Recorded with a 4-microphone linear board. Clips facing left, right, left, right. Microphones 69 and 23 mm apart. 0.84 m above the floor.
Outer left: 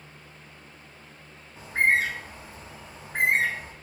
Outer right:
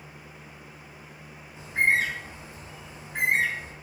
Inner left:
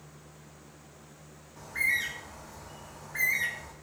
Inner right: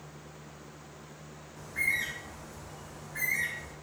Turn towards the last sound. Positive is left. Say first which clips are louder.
# outer left 1 dB, inner left 2 dB
turn(degrees=40)  # may be behind; listen again after turning